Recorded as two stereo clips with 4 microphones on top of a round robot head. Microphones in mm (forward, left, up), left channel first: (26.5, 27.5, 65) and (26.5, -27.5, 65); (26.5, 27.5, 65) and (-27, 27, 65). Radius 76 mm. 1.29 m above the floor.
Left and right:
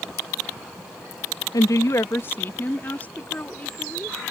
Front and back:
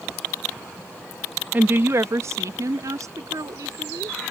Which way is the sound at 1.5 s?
120° left.